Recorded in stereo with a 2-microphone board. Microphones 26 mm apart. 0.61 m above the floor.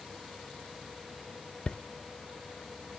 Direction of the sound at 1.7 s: 35° left (ahead or behind).